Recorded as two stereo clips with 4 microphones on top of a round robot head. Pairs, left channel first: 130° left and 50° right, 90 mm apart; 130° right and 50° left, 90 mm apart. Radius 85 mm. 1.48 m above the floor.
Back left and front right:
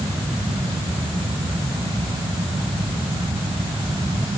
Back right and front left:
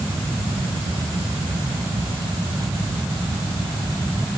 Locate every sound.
Only background noise.